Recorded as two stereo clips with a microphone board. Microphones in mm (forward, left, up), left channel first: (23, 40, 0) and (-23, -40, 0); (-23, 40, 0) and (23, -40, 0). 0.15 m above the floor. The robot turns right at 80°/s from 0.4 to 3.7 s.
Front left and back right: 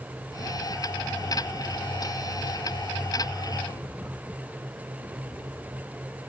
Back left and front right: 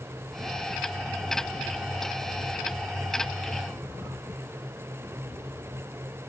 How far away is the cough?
No cough in this recording.